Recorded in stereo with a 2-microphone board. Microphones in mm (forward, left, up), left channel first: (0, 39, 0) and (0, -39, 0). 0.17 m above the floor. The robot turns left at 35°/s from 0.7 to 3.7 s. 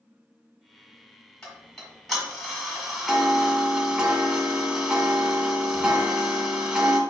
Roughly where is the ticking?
Centre.